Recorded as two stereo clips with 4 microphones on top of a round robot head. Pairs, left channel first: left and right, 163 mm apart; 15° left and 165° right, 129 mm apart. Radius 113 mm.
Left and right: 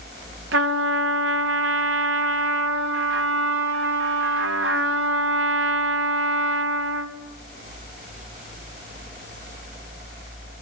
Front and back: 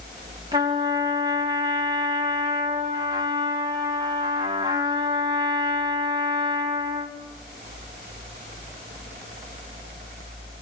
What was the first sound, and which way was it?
A trumpet, 95° right.